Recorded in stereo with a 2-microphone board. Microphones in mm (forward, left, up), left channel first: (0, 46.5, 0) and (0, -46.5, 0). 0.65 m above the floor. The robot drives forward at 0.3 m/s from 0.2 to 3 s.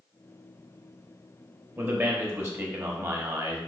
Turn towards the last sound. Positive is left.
turn(degrees=-30)  # may be behind; listen again after turning